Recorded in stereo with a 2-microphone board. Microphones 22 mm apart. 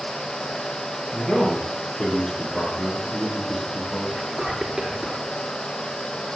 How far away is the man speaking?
About 7.5 m.